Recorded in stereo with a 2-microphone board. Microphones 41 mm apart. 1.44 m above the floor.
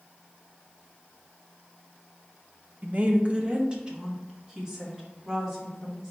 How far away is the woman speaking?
About 0.6 m.